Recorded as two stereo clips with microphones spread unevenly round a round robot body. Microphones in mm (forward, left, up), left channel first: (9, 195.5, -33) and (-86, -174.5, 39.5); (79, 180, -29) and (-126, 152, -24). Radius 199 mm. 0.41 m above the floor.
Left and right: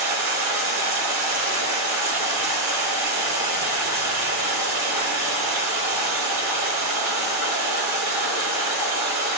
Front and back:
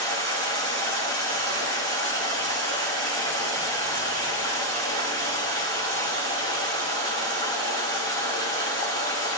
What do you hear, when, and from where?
0.0 s running water: 155° right, 4.5 m